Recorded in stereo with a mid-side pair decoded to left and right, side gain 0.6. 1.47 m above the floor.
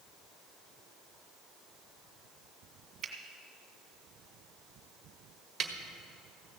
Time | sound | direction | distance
3.0 | a finger snap | 40° right | 1.8 m
5.6 | a snare drum | 35° right | 1.6 m